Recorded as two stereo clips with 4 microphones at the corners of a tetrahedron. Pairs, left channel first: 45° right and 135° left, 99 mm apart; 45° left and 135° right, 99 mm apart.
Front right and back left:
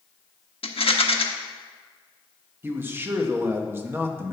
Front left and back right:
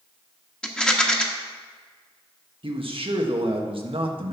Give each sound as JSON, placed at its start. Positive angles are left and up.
{"t": 0.6, "sound": "a rattle", "azimuth_deg": -35, "distance_m": 1.1}
{"t": 2.6, "sound": "a man speaking", "azimuth_deg": -160, "distance_m": 1.4}